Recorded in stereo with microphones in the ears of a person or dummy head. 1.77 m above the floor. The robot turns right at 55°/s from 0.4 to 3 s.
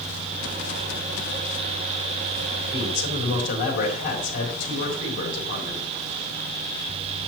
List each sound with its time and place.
2.7 s a man speaking: 30° left (ahead or behind), 3 m; by 5.9 s 45° left (ahead or behind), 3 m